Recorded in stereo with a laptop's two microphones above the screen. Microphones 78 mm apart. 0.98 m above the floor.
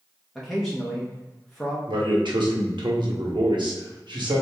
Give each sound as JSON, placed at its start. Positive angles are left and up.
{"t": 0.3, "sound": "a man speaking", "side_deg": 0, "distance_m": 0.7}
{"t": 1.9, "sound": "a man speaking", "side_deg": -80, "distance_m": 1.3}